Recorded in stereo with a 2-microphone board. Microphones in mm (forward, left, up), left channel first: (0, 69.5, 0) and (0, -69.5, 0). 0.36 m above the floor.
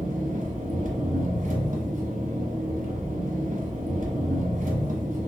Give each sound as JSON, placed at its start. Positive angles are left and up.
{"t": 0.0, "sound": "an engine running", "side_deg": -65, "distance_m": 0.8}